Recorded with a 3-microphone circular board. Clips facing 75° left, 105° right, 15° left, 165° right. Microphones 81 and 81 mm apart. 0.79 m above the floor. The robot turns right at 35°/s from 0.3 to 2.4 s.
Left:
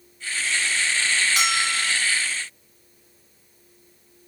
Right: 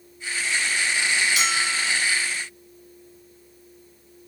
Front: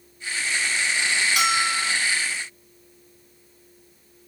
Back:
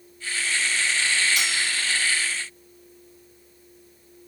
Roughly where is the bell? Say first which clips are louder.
Left 1 dB, front 5 dB; ahead left.